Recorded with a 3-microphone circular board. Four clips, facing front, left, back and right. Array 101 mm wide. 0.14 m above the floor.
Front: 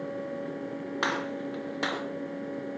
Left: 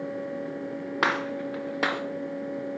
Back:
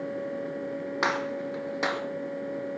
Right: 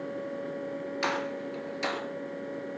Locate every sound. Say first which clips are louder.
1.0 s a gunshot: left 5 dB, back 2 dB; 105° left, 2.5 m